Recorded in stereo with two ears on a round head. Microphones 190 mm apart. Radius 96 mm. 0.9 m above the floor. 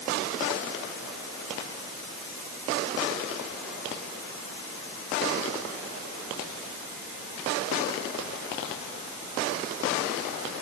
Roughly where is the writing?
No writing in this recording.